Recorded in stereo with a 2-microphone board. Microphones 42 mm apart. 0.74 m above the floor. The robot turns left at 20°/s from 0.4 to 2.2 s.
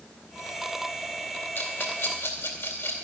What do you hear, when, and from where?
1.6 s a rattle: 65° left (ahead or behind), 2.5 m; by 3.0 s 75° left (ahead or behind), 2.5 m